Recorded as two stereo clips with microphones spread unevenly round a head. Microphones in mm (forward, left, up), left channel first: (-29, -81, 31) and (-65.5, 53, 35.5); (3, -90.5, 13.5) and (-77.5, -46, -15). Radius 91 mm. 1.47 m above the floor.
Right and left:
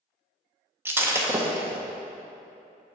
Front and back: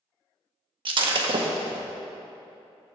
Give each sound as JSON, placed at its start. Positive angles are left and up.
{"t": 0.8, "sound": "breaking glass", "azimuth_deg": 170, "distance_m": 0.7}